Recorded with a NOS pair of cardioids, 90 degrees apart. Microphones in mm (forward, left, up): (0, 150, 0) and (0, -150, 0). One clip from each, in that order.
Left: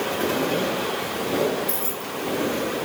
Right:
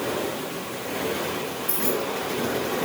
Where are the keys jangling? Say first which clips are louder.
Right 3 dB; straight ahead.